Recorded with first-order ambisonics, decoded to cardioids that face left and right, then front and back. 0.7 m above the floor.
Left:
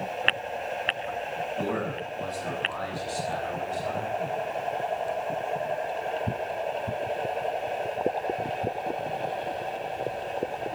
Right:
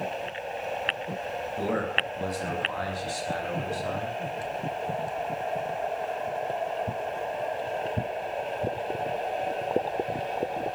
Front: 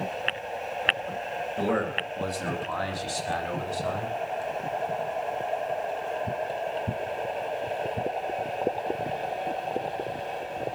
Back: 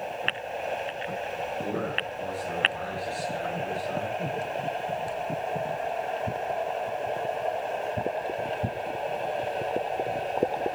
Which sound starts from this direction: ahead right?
A man speaking, at 1.6 s.